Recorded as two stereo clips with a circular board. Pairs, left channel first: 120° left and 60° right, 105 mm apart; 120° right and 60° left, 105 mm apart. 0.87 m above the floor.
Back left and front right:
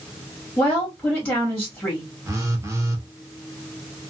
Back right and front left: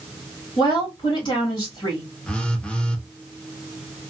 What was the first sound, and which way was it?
A woman speaking, 155° right.